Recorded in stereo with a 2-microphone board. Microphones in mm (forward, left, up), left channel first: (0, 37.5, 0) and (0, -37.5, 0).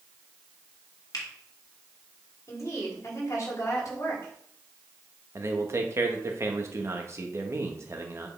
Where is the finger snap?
60° left (ahead or behind), 2.0 m.